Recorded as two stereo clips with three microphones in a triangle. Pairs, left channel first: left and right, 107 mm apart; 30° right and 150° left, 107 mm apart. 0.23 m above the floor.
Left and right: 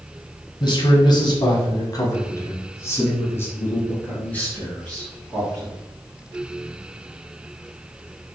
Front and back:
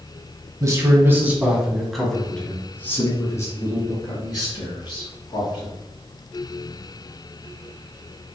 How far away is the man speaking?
About 1.3 m.